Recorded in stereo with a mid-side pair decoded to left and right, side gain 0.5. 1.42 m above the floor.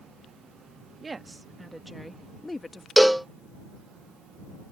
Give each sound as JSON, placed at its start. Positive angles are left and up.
{"t": 1.0, "sound": "a woman speaking", "azimuth_deg": -30}
{"t": 3.0, "sound": "a cowbell", "azimuth_deg": -5}